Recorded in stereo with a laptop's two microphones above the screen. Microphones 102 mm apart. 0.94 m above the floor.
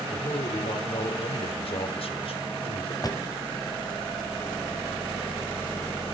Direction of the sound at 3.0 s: 35° left (ahead or behind).